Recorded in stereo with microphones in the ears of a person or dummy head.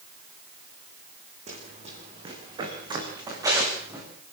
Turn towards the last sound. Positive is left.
turn(degrees=-20)  # may be behind; listen again after turning